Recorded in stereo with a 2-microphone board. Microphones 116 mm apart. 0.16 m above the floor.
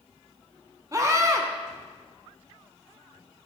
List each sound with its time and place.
0.9 s a scream: 30° right (ahead or behind), 1.2 m